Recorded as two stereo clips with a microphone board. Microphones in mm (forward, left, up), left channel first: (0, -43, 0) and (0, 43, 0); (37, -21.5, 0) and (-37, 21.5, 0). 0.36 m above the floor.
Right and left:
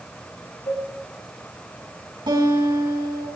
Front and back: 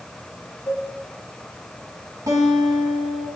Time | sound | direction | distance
0.7 | a cowbell | 85° right | 8.5 m
2.3 | a guitar | 105° left | 3.5 m